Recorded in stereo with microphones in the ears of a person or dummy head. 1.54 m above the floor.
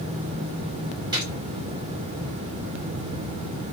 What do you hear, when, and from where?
1.1 s a gunshot: 25° right (ahead or behind), 1.5 m